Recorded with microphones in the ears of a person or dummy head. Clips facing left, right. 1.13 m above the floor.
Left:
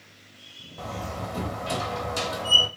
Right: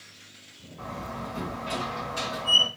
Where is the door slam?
70° left (ahead or behind), 1.6 m.